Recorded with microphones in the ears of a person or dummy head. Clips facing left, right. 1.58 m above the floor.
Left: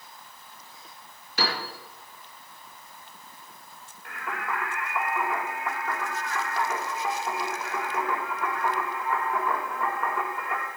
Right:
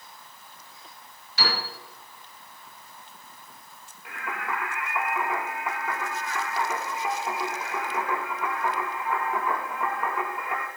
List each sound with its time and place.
1.4 s a piano: 50° left (ahead or behind), 5.5 m
4.0 s singing: centre (ahead or behind), 2 m